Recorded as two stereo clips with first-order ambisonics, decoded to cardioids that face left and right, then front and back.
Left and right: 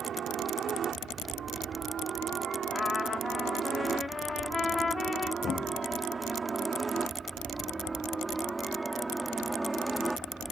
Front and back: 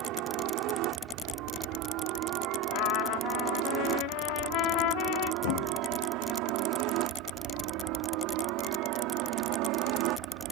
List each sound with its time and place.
0.0 s a helicopter: 150° right; by 10.5 s 175° right
2.7 s a trumpet: 15° left
5.4 s a thud: 20° left